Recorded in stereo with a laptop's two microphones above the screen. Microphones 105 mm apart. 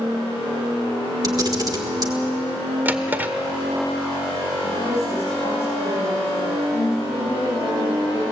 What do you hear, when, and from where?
1.2 s a camera shutter: 40° right (ahead or behind), 1.5 m
2.9 s a drawer: 15° right (ahead or behind), 1.4 m
4.6 s a woman speaking: 85° left, 6 m